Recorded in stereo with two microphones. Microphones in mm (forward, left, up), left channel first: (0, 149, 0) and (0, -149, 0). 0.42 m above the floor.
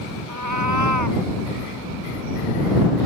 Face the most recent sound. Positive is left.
turn(degrees=-80)